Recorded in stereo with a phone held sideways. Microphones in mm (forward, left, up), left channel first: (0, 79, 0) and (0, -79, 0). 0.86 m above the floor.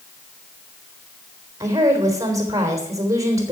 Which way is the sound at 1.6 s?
20° right (ahead or behind).